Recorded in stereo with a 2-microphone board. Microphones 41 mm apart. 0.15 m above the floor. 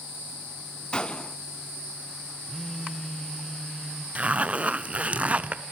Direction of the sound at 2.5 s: 10° left (ahead or behind).